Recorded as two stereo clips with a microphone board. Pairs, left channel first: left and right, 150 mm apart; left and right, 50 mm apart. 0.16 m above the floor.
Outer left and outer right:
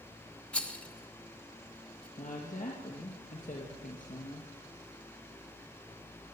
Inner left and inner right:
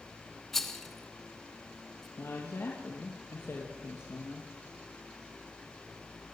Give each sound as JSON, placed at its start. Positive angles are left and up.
{"t": 0.5, "sound": "a rattle", "side_deg": 10, "distance_m": 1.9}
{"t": 2.2, "sound": "a woman speaking", "side_deg": 60, "distance_m": 3.5}